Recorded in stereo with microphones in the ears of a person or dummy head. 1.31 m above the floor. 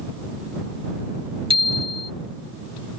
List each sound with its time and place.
1.5 s a bicycle bell: 30° right (ahead or behind)